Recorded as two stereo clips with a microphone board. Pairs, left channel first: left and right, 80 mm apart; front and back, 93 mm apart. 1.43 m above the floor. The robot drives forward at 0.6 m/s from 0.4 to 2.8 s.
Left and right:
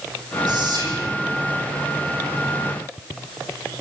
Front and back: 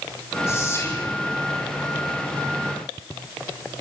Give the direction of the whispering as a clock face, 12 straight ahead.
2 o'clock.